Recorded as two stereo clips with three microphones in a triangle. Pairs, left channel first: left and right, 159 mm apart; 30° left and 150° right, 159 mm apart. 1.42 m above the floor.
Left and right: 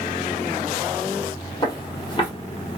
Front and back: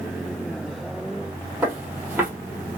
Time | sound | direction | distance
1.6 | footsteps | 135° left | 2.0 m